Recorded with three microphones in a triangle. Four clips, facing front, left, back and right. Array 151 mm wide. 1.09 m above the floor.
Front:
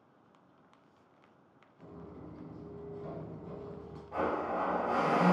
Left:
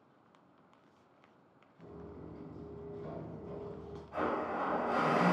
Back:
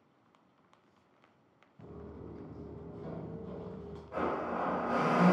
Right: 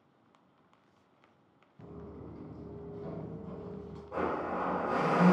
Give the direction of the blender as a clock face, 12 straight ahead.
3 o'clock.